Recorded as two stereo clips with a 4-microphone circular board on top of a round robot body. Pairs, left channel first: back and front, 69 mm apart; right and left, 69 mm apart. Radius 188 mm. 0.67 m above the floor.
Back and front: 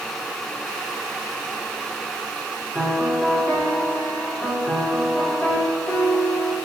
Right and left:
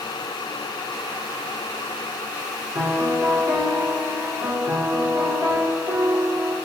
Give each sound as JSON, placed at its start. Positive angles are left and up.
{"t": 2.8, "sound": "a piano", "azimuth_deg": 115, "distance_m": 1.2}